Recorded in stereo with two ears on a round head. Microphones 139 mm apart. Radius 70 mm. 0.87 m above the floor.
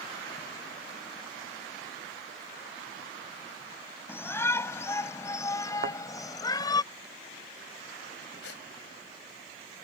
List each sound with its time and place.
4.1 s a shout: 15° left (ahead or behind); by 6.8 s 25° left (ahead or behind)
5.8 s a thud: 55° right (ahead or behind)
8.4 s a gasp: 75° left (ahead or behind)